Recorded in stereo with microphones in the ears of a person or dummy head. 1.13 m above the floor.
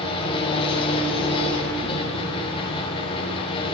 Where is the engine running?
30° left (ahead or behind), 5 m.